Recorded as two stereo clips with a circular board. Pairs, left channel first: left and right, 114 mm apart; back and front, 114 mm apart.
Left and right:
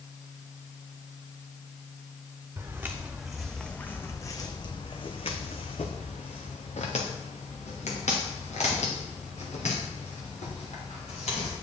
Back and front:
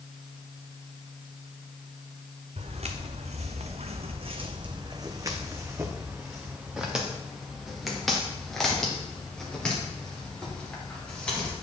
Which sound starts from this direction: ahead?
Footsteps, at 2.6 s.